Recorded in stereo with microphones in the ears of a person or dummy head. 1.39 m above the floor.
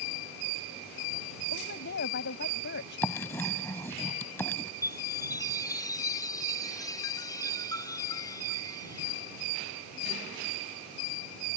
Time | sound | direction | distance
1.5 | a woman speaking | 55° left (ahead or behind) | ?
3.0 | writing | 15° left (ahead or behind) | ?
4.8 | a chime | 20° left (ahead or behind) | ?